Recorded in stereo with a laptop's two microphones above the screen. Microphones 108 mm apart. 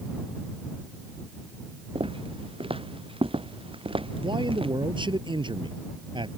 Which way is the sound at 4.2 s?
50° right (ahead or behind).